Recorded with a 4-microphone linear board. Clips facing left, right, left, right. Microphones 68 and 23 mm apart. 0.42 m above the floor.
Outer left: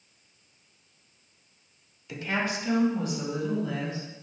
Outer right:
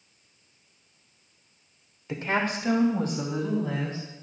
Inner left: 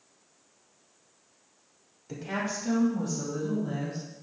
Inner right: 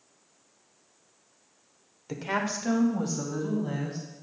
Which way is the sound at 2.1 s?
35° right (ahead or behind).